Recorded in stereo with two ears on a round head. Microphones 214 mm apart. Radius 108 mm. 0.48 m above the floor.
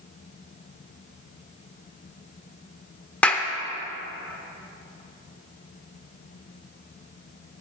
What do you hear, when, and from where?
3.2 s a clap: 5° left (ahead or behind), 0.7 m